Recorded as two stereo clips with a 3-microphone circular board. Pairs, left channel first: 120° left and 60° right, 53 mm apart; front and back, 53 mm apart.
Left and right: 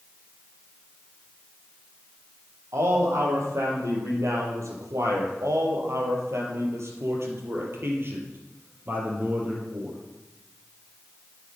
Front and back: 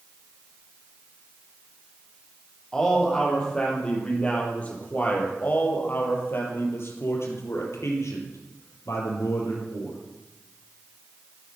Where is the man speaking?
80° right, 5 m; by 10.0 s straight ahead, 4.5 m.